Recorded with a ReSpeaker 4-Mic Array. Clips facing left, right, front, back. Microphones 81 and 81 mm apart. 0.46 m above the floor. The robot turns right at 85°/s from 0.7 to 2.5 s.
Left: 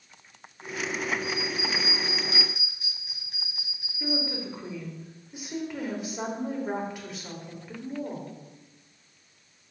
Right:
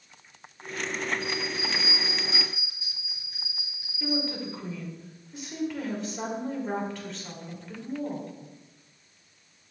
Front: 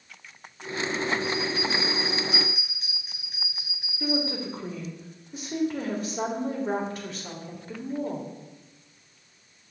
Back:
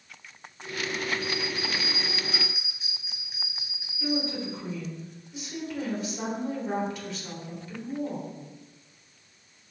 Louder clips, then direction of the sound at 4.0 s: Right 1 dB, front 1 dB; 20° left.